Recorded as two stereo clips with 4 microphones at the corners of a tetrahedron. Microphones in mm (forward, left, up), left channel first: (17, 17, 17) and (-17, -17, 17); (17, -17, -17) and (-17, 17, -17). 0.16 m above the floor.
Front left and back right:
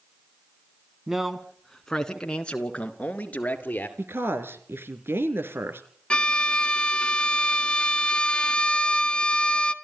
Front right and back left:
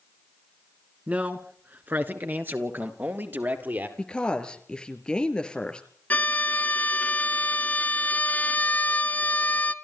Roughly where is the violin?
Ahead.